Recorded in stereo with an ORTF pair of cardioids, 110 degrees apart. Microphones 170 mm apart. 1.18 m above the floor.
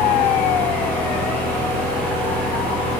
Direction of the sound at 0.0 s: 10° left.